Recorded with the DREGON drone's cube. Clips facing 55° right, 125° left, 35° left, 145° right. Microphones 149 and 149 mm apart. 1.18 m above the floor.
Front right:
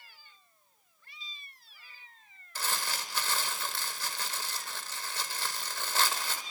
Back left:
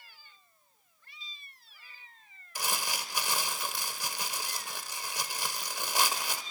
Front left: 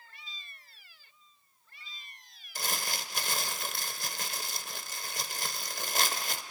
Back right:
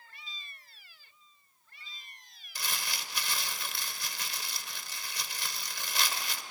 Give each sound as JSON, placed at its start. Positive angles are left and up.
{"t": 2.5, "sound": "crumpling", "azimuth_deg": 55, "distance_m": 1.3}